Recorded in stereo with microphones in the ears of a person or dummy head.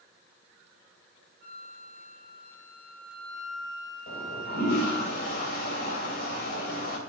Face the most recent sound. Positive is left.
turn(degrees=55)  # may be behind; listen again after turning